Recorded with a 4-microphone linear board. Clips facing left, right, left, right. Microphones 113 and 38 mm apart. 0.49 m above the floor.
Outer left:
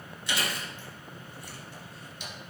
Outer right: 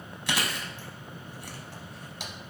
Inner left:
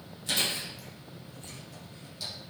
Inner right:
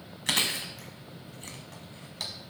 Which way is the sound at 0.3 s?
75° right (ahead or behind).